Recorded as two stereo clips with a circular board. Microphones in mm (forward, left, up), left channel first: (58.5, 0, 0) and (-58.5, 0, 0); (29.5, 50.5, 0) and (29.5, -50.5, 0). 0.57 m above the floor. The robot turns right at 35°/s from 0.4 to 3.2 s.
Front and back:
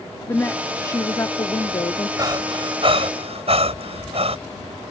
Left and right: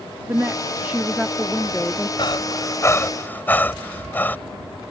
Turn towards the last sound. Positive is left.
turn(degrees=160)